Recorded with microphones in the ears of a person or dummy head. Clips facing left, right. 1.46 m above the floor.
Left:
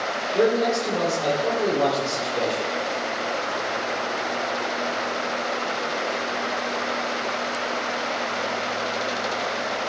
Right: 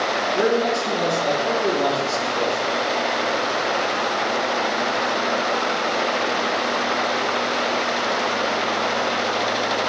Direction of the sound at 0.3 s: 70° left (ahead or behind).